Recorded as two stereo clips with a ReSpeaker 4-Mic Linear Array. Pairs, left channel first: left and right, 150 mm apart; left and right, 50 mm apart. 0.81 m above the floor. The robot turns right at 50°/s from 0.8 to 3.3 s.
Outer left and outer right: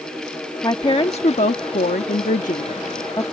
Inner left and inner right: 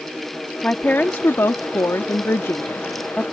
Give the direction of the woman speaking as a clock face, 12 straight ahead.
11 o'clock.